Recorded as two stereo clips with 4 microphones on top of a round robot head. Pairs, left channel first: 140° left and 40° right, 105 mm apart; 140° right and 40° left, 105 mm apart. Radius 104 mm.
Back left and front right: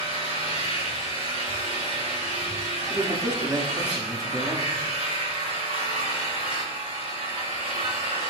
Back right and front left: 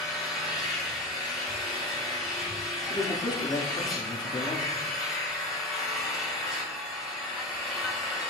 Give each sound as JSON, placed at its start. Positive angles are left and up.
{"t": 0.0, "sound": "an engine running", "azimuth_deg": -45, "distance_m": 4.5}
{"t": 2.9, "sound": "a man speaking", "azimuth_deg": -95, "distance_m": 1.7}